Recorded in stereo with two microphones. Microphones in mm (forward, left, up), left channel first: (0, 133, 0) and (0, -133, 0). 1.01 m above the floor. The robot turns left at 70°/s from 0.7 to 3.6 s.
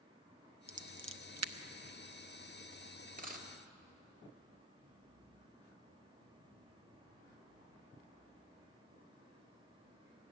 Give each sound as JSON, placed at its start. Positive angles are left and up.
{"t": 0.7, "sound": "scissors", "side_deg": -25, "distance_m": 0.5}
{"t": 3.2, "sound": "a dropped coin", "side_deg": -30, "distance_m": 1.2}